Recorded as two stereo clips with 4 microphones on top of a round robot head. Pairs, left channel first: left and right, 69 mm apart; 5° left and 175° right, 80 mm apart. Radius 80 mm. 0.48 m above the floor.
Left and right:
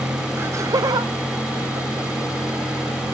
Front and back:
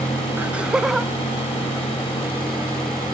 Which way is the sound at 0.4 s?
120° right.